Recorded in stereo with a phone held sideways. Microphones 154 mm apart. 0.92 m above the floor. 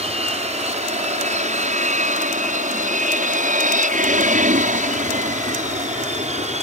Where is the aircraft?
45° right (ahead or behind).